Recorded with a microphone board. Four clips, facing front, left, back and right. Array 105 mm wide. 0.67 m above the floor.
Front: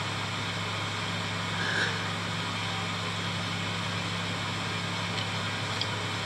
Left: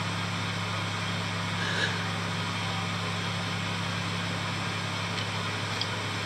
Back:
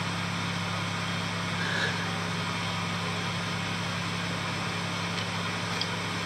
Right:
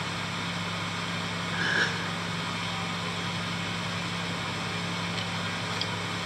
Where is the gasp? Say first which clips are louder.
Right 4 dB, front 1 dB; 80° right, 4.5 m.